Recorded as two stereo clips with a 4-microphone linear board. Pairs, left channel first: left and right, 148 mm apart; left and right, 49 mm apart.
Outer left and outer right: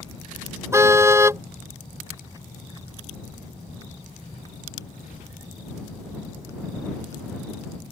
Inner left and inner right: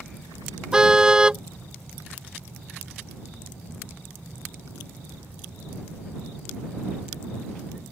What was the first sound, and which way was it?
A car horn, 20° right (ahead or behind).